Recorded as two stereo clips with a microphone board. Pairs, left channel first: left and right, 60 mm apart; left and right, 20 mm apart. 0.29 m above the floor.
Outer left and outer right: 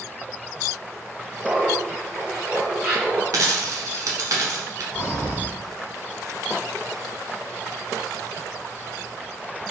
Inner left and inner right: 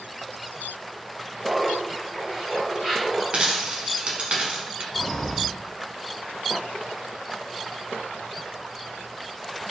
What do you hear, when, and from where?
1.4 s laughter: 10° right (ahead or behind), 1.2 m
3.3 s a dropped coin: 75° right (ahead or behind), 0.9 m
4.9 s breathing: 45° left (ahead or behind), 1.4 m